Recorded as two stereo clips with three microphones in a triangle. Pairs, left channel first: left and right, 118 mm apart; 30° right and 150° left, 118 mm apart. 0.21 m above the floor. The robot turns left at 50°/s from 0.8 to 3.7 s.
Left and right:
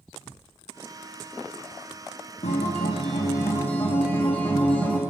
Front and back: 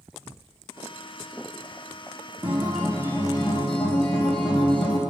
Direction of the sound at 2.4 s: 75° left.